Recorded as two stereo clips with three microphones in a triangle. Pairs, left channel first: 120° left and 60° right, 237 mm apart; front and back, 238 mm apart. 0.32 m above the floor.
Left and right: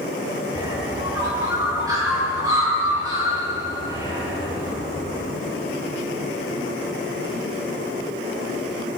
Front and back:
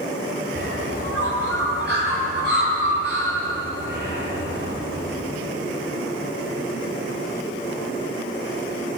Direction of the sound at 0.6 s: 135° right.